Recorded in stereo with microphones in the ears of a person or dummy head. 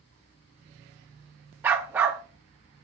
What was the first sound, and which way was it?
A dog barking, 5° right (ahead or behind).